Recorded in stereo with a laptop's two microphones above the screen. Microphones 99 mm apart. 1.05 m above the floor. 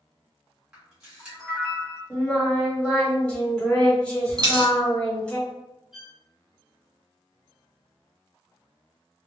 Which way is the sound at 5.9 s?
5° right (ahead or behind).